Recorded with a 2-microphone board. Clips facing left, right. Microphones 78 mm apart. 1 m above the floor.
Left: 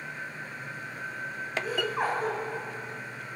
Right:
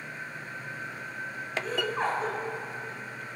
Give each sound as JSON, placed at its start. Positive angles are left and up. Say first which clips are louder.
{"t": 1.6, "sound": "laughter", "louder": "even", "side_deg": 10, "distance_m": 3.0}